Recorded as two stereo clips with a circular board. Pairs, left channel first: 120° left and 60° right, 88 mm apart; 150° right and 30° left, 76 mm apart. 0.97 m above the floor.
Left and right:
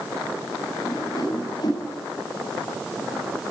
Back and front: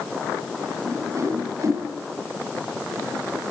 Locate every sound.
0.8 s a whoosh: 80° left, 7 m